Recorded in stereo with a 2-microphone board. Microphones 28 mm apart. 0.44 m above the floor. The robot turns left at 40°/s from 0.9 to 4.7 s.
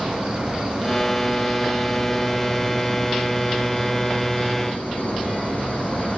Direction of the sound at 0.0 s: 140° right.